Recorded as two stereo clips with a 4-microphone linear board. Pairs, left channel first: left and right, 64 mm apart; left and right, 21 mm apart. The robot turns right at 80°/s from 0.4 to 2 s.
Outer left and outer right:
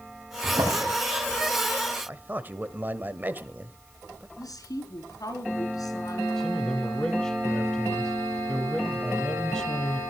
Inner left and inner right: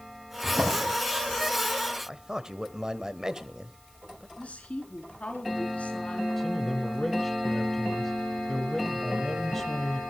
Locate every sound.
0.4 s a drawer: 65° right (ahead or behind), 8.5 m; by 0.9 s 75° right (ahead or behind), 8.5 m
2.1 s a man speaking: 30° right (ahead or behind), 1.0 m
4.4 s a woman speaking: 70° left (ahead or behind), 4 m
6.4 s a man speaking: 10° left (ahead or behind), 1.0 m